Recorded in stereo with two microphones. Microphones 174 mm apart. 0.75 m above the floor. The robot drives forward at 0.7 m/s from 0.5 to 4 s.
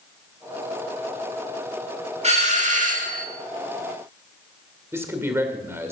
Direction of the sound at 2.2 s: 40° right (ahead or behind).